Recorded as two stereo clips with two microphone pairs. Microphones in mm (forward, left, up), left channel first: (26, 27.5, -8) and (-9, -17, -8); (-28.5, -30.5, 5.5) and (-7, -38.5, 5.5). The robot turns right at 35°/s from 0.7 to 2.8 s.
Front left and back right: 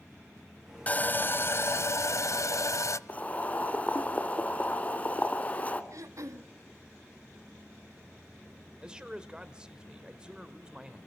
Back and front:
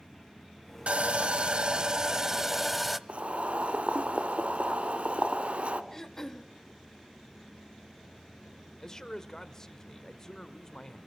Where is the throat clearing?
135° right, 1.4 m.